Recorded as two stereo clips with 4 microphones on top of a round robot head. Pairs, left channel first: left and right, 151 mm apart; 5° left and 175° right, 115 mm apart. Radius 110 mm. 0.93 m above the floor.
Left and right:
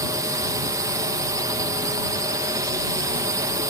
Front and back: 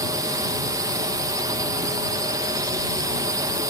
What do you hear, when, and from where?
0.0 s a drone: 145° right